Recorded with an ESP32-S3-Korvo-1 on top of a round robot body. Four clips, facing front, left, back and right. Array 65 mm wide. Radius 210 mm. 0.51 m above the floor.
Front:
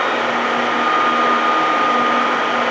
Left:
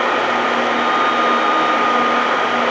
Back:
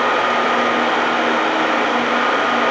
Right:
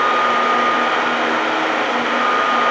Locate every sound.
Only background noise.